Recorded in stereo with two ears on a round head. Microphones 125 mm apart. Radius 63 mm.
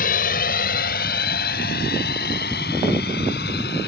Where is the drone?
65° left (ahead or behind); by 3.9 s 80° left.